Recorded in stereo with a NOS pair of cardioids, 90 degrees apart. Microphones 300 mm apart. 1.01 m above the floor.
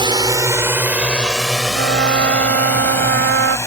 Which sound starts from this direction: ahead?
A drone, at 0.0 s.